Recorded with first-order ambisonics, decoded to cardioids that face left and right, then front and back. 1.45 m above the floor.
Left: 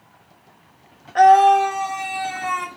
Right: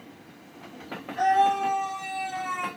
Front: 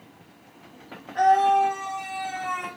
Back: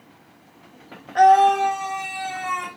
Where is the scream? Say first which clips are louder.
Left 10 dB, back 5 dB; 120° left, 1.2 m; by 2.7 s 115° left, 2.5 m.